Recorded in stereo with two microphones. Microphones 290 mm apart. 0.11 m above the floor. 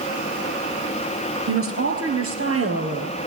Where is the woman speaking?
50° right (ahead or behind), 2.5 m; by 3.2 s 55° right (ahead or behind), 3 m.